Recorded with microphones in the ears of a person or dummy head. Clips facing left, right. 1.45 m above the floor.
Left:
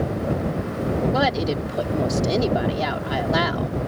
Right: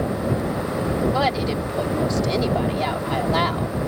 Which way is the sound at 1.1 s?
10° left (ahead or behind).